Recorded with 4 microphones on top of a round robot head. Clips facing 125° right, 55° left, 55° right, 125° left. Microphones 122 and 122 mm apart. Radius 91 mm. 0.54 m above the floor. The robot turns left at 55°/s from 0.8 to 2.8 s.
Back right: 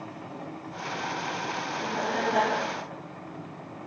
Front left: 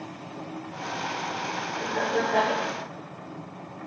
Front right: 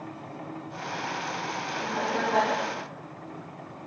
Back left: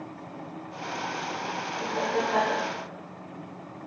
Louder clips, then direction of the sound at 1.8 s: Front left 3 dB, back left 1 dB; 70° left.